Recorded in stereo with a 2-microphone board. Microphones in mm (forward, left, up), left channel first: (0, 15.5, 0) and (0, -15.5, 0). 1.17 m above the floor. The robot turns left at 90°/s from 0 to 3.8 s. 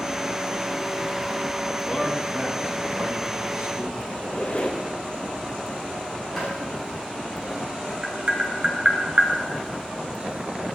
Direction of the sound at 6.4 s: 5° left (ahead or behind).